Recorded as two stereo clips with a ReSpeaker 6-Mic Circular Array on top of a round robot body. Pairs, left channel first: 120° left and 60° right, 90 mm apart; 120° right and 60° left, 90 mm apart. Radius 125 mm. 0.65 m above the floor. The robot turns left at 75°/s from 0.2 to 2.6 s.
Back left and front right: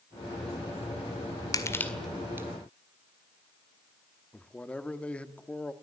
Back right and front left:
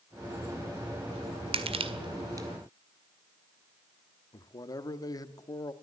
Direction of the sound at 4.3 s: 165° right.